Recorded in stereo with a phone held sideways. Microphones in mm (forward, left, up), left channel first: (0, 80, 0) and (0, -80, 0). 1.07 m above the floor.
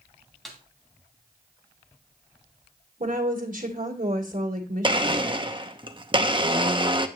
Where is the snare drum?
Centre (ahead or behind), 2.5 m.